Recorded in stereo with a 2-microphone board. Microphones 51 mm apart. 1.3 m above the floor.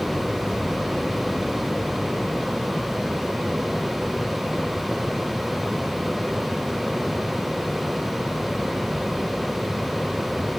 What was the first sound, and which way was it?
Only background noise.